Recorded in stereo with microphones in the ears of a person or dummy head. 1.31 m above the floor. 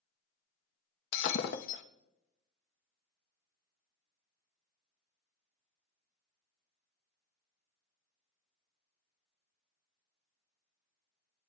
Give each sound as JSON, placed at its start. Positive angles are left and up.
{"t": 1.1, "sound": "breaking glass", "side_deg": 60, "distance_m": 0.8}